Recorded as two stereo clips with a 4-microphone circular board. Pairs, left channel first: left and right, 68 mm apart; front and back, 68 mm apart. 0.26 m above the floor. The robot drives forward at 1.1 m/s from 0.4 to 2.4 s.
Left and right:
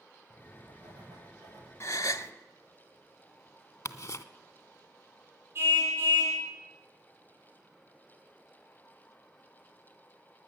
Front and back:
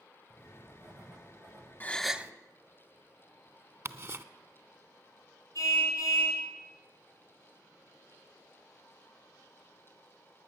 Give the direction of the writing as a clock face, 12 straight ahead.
4 o'clock.